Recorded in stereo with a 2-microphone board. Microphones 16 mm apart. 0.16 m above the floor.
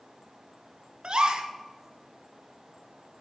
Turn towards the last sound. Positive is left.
turn(degrees=-60)  # may be behind; listen again after turning